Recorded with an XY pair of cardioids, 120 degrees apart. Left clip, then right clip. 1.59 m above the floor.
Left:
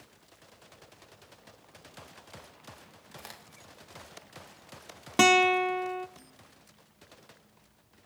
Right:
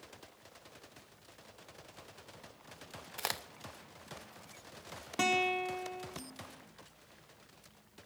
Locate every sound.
3.2 s a crack: 65° right, 0.7 m
5.2 s a guitar: 60° left, 0.7 m